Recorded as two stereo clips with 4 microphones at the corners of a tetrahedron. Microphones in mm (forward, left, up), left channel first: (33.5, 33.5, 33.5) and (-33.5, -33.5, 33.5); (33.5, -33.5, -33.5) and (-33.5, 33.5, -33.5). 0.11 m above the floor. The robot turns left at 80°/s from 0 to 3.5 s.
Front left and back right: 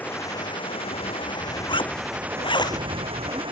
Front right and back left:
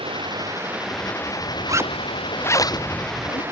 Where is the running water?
120° left; by 3.5 s 160° right.